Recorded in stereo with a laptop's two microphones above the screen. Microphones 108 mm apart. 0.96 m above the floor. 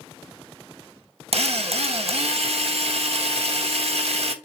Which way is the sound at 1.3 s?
70° right (ahead or behind).